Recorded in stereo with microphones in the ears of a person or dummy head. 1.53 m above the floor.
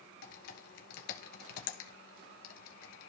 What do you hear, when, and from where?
0.2 s typing on a keyboard: 50° left (ahead or behind), 2.5 m